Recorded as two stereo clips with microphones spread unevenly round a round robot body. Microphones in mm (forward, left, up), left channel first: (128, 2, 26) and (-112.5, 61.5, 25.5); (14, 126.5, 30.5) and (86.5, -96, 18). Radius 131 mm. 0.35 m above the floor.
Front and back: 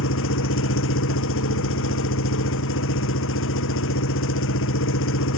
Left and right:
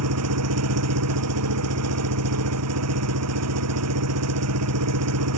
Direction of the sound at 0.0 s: 60° right.